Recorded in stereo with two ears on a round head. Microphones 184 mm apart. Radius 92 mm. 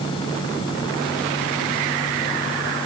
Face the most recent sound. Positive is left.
No sound to turn to.